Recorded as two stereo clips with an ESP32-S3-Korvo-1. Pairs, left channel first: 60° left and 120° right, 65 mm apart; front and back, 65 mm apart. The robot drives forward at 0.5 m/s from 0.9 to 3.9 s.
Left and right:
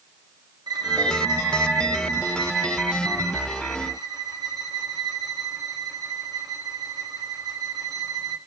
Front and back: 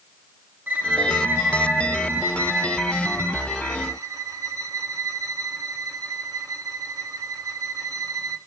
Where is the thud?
I don't hear a thud.